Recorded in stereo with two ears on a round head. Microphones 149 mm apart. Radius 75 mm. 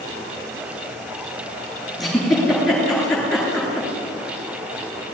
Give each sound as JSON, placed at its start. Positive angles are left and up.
{"t": 2.0, "sound": "a giggle", "side_deg": 0, "distance_m": 9.0}